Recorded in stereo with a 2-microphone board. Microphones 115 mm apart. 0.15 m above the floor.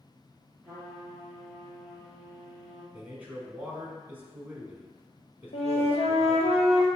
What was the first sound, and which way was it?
A trumpet, centre (ahead or behind).